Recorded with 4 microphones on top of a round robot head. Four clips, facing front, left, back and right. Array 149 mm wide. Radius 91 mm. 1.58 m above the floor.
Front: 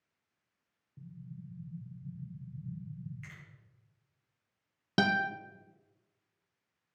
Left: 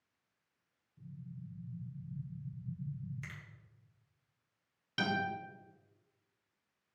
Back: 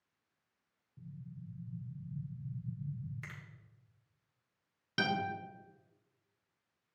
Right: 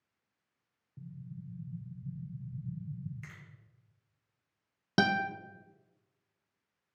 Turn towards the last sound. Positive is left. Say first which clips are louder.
# right 6 dB, front 5 dB
turn(degrees=-55)